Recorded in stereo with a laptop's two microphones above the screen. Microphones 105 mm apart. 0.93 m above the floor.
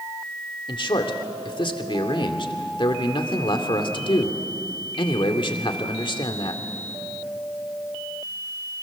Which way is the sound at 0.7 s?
50° left (ahead or behind).